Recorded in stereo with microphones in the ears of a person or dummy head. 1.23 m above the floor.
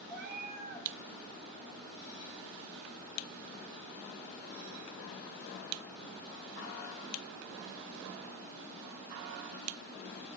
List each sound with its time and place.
0.1 s a cat meowing: 5° right (ahead or behind), 1.7 m